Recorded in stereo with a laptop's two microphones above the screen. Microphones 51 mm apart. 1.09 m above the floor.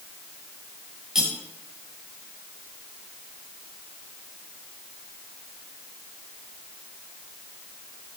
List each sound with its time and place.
1.1 s cutlery clinking: 15° right (ahead or behind), 1.9 m